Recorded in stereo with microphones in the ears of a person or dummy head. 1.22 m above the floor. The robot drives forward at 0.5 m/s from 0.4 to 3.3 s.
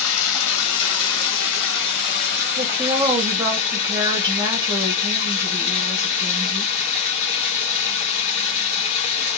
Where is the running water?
85° left, 1.1 m; by 9.4 s 40° left (ahead or behind), 1.8 m.